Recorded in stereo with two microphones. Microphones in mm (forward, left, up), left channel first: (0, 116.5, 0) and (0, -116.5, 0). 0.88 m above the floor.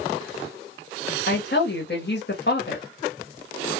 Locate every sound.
1.3 s a woman speaking: 50° left (ahead or behind), 1.4 m